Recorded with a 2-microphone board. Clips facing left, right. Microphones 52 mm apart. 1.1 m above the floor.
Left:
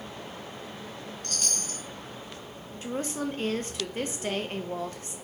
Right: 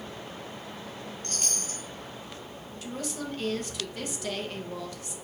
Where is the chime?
30° right (ahead or behind), 1.0 m.